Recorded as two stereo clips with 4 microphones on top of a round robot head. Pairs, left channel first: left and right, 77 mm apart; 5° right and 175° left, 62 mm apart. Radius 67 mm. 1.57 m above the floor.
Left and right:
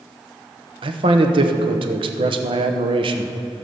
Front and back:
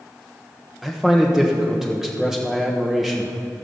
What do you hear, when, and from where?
0.8 s a man speaking: 100° right, 1.0 m